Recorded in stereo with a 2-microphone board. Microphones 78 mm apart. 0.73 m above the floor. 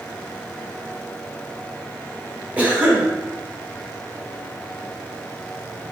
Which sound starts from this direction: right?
A cough, at 2.6 s.